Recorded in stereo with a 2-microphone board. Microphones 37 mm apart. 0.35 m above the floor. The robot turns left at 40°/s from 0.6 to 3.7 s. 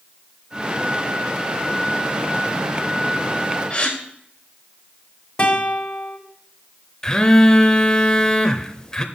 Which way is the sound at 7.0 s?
20° left (ahead or behind).